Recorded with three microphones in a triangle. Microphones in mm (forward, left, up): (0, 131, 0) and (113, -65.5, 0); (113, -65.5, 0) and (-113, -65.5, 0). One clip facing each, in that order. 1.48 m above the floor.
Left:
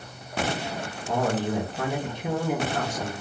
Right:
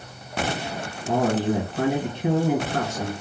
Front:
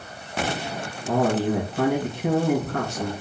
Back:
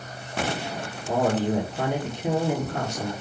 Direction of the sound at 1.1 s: 30° right.